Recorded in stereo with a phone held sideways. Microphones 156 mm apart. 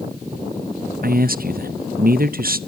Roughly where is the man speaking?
Right.